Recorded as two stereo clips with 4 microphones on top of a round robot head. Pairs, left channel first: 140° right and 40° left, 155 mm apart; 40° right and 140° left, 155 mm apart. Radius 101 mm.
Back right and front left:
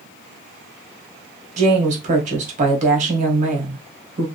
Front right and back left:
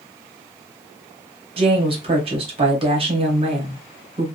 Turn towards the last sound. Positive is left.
turn(degrees=85)